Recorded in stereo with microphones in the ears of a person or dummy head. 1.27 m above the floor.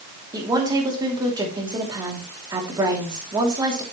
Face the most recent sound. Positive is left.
turn(degrees=-20)  # may be behind; listen again after turning